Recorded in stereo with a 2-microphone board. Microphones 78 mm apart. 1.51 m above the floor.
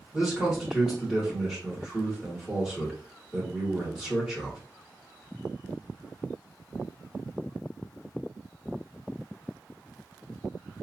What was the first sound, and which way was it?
A man speaking, 5° right (ahead or behind).